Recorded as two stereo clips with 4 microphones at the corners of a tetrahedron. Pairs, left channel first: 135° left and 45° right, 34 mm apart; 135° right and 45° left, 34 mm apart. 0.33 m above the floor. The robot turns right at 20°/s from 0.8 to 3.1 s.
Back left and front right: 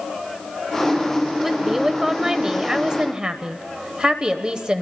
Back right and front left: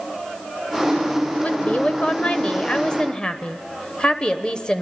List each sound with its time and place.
1.4 s a woman speaking: 125° right, 1.0 m; by 4.8 s 90° right, 1.0 m